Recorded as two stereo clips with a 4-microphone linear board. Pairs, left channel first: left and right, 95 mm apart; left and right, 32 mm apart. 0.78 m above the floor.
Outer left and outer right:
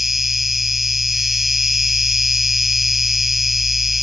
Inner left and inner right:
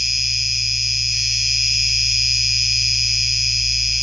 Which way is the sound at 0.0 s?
5° right (ahead or behind).